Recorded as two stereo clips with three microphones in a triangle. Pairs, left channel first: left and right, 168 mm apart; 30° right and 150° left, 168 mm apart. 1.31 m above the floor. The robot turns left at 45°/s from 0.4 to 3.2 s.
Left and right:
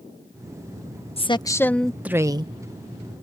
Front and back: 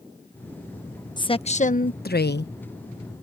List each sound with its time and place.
1.2 s a woman speaking: 35° left; by 2.5 s 30° right